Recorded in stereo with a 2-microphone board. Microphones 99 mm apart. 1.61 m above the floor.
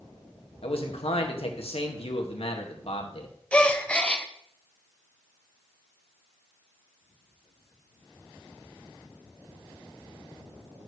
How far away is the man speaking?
About 1.9 m.